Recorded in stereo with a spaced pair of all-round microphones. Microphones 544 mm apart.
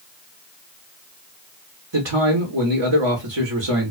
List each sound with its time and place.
1.9 s a man speaking: 50° right (ahead or behind), 1.0 m